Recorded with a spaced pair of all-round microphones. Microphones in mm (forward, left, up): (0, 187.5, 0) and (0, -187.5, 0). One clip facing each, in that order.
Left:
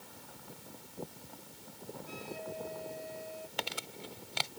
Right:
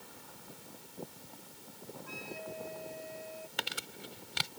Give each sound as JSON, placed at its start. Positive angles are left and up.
{"t": 2.1, "sound": "a flute", "side_deg": 50}
{"t": 3.6, "sound": "crumpling", "side_deg": -25}